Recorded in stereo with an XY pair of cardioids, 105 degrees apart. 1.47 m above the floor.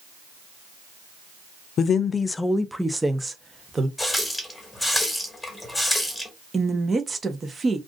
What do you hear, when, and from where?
1.8 s a woman speaking: 55° left, 0.6 m; by 3.9 s 25° right, 1.3 m
4.0 s a running tap: 10° left, 1.4 m
6.5 s a woman speaking: 25° right, 1.0 m